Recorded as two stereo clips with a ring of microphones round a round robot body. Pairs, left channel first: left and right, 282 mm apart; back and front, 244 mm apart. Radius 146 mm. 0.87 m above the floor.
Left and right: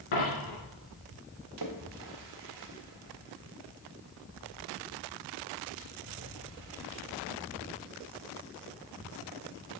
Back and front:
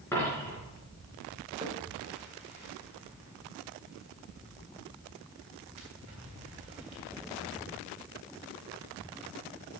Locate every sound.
0.1 s a dropped coin: 100° left, 4 m
1.6 s a splash: 70° right, 1.5 m